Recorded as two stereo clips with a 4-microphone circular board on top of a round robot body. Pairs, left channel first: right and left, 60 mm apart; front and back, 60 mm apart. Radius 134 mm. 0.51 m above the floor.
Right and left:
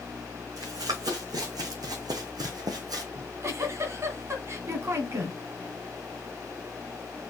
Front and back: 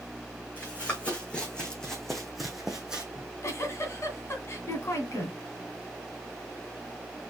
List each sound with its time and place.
0.6 s running footsteps: 65° left, 3 m; by 3.0 s 105° left, 1.8 m
3.1 s a giggle: 45° left, 1.9 m